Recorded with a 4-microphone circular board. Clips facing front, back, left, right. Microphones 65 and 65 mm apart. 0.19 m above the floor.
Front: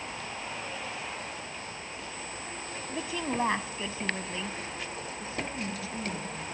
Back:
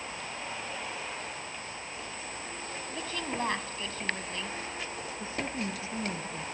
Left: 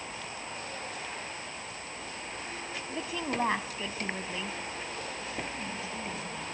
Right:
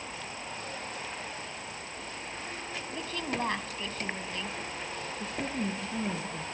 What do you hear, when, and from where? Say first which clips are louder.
2.9 s a woman speaking: front 4 dB, left 2 dB; 45° left, 1.0 m
5.2 s a woman speaking: back 1 dB, right 4 dB; 120° right, 2.5 m